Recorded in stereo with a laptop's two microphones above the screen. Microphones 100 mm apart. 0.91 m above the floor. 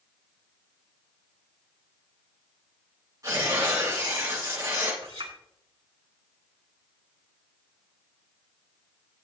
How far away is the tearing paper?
About 6 m.